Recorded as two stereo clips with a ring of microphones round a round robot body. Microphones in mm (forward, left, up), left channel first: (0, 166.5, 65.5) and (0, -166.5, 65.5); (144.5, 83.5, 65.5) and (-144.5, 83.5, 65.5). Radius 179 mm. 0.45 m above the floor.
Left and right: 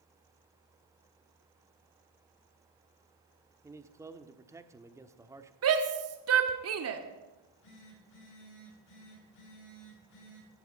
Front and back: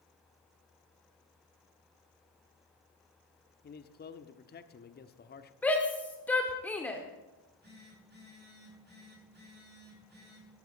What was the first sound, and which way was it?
A man speaking, 15° right.